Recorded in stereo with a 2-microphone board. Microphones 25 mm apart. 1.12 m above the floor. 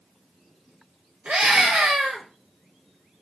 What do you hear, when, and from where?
1.2 s a scream: 75° right (ahead or behind), 1.7 m